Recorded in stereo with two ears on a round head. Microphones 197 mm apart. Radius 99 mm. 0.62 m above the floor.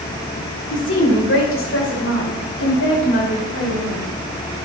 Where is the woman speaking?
55° left (ahead or behind), 2.5 m; by 4.1 s 70° left (ahead or behind), 5.5 m.